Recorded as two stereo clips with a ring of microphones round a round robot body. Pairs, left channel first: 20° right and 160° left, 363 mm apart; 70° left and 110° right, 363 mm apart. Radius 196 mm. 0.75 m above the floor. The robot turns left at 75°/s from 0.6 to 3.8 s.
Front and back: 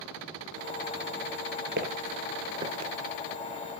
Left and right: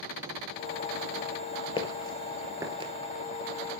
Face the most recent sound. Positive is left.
turn(degrees=125)